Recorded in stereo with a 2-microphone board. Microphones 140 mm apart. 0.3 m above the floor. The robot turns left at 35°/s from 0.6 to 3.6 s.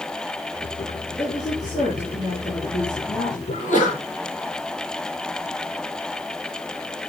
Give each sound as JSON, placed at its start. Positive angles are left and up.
{"t": 1.2, "sound": "a woman speaking", "azimuth_deg": 170, "distance_m": 4.5}
{"t": 3.5, "sound": "a sneeze", "side_deg": 70, "distance_m": 9.0}